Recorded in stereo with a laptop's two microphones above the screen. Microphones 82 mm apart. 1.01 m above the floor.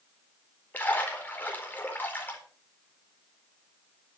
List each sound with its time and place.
0.7 s a splash: 20° left (ahead or behind), 4 m